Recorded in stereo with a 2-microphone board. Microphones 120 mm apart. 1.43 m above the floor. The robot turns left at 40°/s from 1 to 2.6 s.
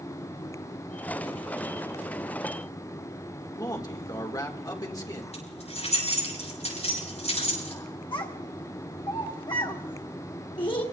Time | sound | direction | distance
3.6 | a man speaking | 30° left (ahead or behind) | 1.8 m
5.3 | keys jangling | 65° left (ahead or behind) | 7 m
8.1 | a child speaking | 45° left (ahead or behind) | 1.1 m